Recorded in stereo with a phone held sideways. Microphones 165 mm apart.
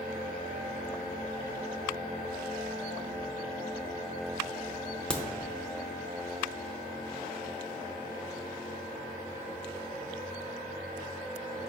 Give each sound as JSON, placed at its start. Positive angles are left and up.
{"t": 5.1, "sound": "a crack", "side_deg": 5, "distance_m": 0.5}